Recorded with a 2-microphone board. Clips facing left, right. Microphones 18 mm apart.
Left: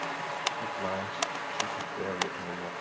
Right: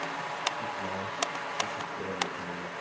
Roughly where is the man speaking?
Left.